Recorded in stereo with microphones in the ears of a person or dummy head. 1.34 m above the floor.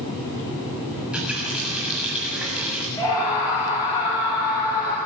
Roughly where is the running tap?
Centre.